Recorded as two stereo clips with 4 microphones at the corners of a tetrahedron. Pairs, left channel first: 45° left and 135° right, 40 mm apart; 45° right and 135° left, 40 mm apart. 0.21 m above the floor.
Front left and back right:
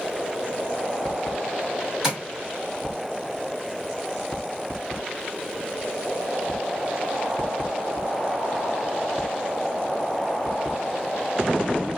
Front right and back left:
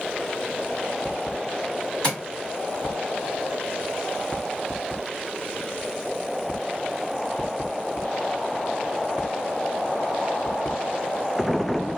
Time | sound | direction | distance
2.0 | tapping | 70° right | 1.4 m